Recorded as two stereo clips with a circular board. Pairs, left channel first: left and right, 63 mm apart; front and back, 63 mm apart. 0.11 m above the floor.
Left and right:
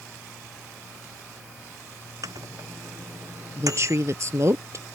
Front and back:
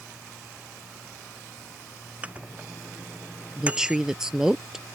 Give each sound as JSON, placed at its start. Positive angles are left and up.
{"t": 2.2, "sound": "a microwave", "azimuth_deg": -110}
{"t": 3.6, "sound": "a woman speaking", "azimuth_deg": -100}